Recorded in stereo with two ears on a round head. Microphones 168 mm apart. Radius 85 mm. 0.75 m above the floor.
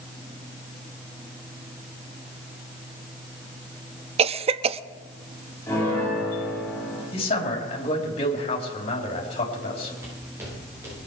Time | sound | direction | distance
4.2 | a cough | 35° right (ahead or behind) | 0.6 m
5.7 | a piano | 10° left (ahead or behind) | 9 m
7.1 | a man speaking | 30° left (ahead or behind) | 4.5 m
10.0 | footsteps | 15° right (ahead or behind) | 10 m